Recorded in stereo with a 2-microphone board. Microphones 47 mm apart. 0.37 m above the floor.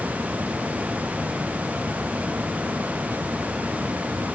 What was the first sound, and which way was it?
Only background noise.